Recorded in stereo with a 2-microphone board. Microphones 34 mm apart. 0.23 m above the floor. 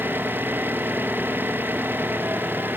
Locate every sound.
0.0 s an engine running: 80° right